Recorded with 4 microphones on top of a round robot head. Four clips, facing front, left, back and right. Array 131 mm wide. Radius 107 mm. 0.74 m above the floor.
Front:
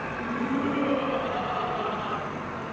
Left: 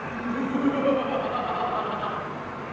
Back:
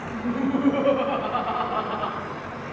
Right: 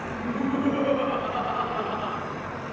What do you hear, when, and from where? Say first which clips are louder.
0.1 s laughter: right 1 dB, back 5 dB; 160° left, 4.5 m; by 2.2 s 155° left, 6.5 m